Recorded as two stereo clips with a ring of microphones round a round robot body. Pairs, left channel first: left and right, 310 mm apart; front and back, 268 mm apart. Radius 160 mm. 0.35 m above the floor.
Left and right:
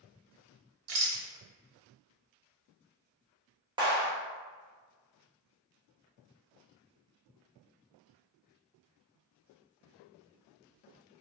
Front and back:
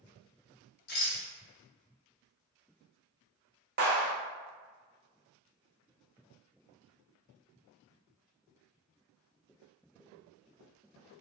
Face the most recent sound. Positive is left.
turn(degrees=-155)